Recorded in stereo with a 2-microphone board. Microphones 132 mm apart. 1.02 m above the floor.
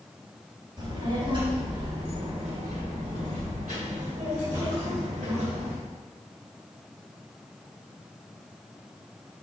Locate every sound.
0.8 s a child speaking: 30° right (ahead or behind), 3 m; by 5.8 s 70° right (ahead or behind), 3.5 m